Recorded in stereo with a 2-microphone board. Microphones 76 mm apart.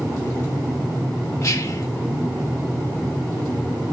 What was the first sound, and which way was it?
Whispering, 45° left (ahead or behind).